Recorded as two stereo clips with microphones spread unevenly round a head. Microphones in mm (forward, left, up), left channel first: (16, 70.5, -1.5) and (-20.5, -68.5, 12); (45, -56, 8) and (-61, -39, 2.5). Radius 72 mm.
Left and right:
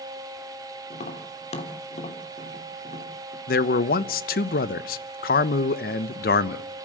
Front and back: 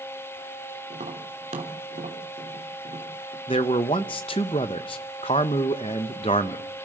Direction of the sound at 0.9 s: 120° left.